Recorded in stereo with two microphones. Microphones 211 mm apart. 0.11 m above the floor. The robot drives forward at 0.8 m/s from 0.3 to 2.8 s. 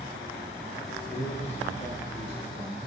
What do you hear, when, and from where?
1.1 s a man speaking: 35° left (ahead or behind), 4 m; by 2.8 s 25° left (ahead or behind), 5 m